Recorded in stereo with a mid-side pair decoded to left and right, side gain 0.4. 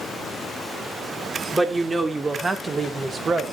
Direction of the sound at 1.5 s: 20° right.